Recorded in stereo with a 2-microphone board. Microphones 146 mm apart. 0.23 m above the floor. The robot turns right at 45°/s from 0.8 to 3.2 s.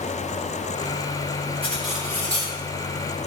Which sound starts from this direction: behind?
Cutlery clinking, at 1.6 s.